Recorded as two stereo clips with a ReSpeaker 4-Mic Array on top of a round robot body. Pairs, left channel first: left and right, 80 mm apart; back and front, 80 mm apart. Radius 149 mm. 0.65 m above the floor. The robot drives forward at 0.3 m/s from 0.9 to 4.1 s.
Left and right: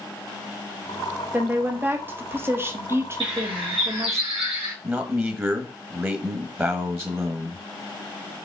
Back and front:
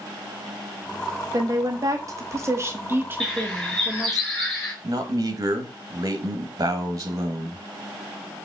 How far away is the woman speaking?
About 1.3 m.